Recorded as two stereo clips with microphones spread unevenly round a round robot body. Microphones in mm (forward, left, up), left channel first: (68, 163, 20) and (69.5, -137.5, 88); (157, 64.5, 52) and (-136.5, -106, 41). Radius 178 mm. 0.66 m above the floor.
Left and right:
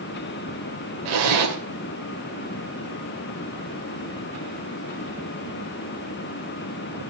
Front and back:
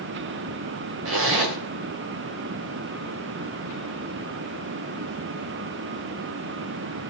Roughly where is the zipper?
Right.